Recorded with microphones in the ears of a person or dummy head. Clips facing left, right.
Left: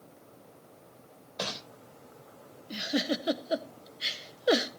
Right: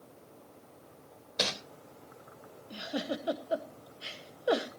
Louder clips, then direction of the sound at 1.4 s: Right 2 dB; 30° right (ahead or behind).